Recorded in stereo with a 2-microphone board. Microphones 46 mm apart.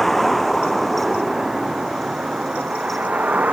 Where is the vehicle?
Centre (ahead or behind); by 3.5 s 40° right (ahead or behind).